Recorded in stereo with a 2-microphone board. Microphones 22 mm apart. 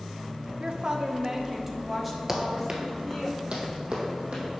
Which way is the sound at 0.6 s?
45° right (ahead or behind).